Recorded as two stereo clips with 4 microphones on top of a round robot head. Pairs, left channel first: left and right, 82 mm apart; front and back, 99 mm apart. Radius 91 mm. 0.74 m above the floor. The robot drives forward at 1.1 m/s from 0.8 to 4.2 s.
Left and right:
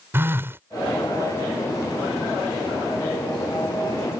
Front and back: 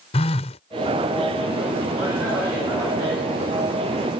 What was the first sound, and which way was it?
A phone buzzing, 25° right.